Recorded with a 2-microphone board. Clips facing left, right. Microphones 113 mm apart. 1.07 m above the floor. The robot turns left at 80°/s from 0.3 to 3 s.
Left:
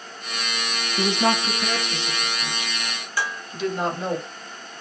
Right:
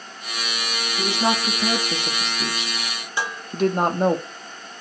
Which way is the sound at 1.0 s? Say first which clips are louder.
Left 1 dB; 30° left (ahead or behind).